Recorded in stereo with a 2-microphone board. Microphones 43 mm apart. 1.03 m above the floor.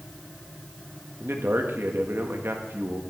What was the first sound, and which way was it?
A man speaking, 65° right (ahead or behind).